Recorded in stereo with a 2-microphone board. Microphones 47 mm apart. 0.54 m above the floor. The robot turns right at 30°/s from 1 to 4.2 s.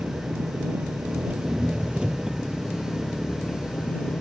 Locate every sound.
0.0 s an engine running: 55° right; by 4.2 s 40° left